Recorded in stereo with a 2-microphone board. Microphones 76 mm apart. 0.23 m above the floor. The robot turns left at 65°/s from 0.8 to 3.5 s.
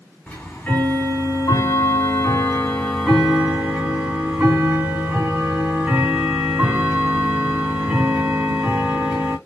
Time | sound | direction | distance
0.3 | ticking | 150° left | 2.5 m